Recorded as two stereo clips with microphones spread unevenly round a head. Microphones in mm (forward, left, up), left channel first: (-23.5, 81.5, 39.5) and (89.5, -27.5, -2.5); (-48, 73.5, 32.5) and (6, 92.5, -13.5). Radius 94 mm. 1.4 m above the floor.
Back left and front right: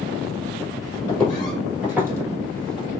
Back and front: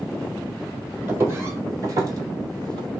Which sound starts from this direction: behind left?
Footsteps, at 1.1 s.